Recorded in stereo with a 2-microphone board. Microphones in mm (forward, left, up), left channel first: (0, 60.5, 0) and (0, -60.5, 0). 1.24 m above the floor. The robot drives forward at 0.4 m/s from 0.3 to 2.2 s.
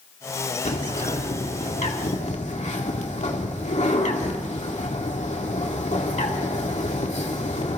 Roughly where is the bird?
Left.